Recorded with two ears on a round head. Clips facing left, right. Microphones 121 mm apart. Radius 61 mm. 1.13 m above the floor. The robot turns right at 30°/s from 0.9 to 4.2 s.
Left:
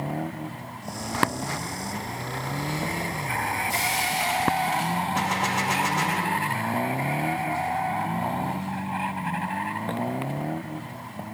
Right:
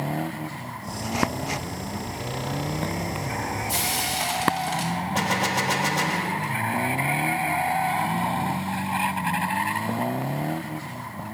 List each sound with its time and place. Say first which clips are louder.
3.7 s frying: left 1 dB; 60° right (ahead or behind), 4.5 m; by 4.9 s 45° right (ahead or behind), 4.5 m
5.2 s a gunshot: right 1 dB; 40° right (ahead or behind), 1.0 m